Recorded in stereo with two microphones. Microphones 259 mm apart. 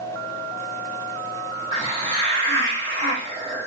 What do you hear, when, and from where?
1.7 s a hiss: 20° right (ahead or behind), 1.4 m